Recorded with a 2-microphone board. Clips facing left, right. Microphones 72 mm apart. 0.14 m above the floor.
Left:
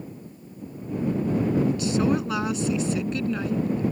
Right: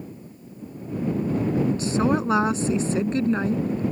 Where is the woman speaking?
35° right (ahead or behind).